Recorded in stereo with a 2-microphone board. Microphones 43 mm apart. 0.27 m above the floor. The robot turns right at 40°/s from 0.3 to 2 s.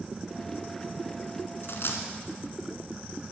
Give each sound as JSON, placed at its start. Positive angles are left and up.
{"t": 1.6, "sound": "a dropped coin", "side_deg": 70, "distance_m": 1.4}